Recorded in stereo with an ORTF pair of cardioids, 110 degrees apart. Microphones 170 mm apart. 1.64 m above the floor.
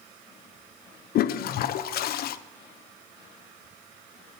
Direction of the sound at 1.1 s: 65° left.